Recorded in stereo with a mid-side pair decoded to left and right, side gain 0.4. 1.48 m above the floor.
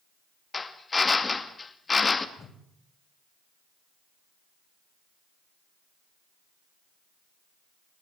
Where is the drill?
30° left, 2.5 m.